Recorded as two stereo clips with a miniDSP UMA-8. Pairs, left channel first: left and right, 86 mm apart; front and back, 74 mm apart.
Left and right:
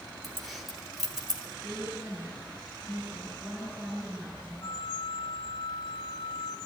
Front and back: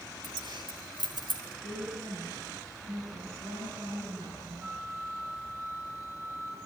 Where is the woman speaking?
170° right, 9.5 m.